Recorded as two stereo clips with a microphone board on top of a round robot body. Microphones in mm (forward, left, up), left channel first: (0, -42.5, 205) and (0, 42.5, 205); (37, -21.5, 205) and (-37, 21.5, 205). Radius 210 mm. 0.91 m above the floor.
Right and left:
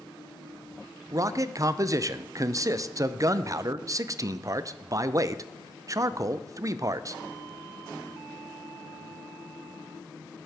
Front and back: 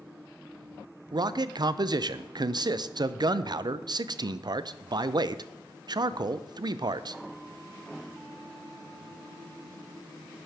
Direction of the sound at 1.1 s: 130° left.